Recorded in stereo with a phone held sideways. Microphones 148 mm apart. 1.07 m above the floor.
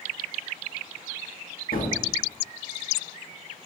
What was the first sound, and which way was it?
A gunshot, 70° left (ahead or behind).